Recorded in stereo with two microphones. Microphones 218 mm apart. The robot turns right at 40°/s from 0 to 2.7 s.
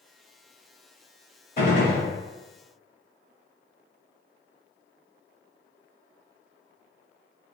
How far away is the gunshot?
About 1.7 m.